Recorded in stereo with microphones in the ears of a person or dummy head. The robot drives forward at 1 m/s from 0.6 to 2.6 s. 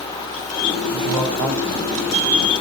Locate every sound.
0.9 s a man speaking: 75° right (ahead or behind), 7.5 m; by 2.5 s 65° right (ahead or behind), 8 m